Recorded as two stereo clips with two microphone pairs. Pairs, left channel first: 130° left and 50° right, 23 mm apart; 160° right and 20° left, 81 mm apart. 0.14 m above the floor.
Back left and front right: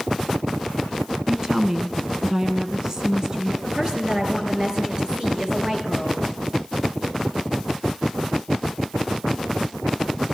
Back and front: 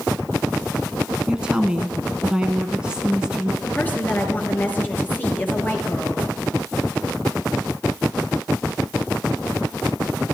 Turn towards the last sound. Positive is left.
turn(degrees=-95)